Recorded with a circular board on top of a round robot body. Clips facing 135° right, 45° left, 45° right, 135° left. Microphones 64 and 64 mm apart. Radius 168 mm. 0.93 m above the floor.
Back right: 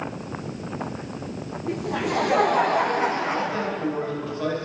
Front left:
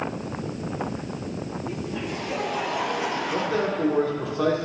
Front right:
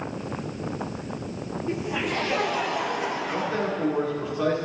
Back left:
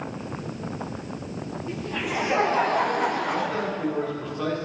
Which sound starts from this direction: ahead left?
A man speaking, at 3.3 s.